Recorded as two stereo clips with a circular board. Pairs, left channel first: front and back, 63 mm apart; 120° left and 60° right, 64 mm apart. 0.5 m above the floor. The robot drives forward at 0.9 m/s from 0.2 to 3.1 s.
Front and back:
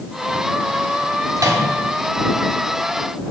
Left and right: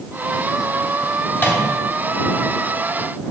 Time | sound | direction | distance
1.4 | a microwave | 170° left | 2.5 m